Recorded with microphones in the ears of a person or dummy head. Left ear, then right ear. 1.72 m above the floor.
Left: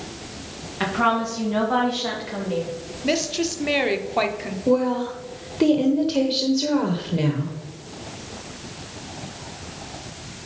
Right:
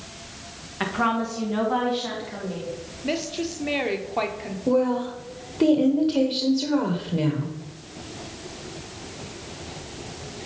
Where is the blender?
I don't hear a blender.